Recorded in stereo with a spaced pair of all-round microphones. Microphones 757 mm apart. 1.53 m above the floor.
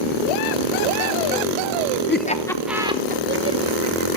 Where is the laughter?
15° left (ahead or behind), 1.0 m; by 4.2 s 30° right (ahead or behind), 1.6 m.